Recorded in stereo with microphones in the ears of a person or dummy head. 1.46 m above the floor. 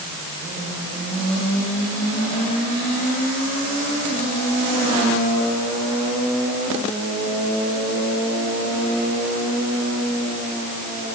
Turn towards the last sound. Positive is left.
No sound to turn to.